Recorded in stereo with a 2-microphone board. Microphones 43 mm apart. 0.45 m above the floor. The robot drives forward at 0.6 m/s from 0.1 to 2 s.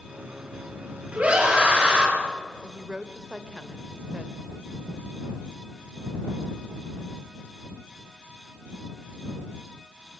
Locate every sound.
1.1 s a scream: 30° right (ahead or behind), 7.5 m
2.6 s a woman speaking: 20° right (ahead or behind), 1.8 m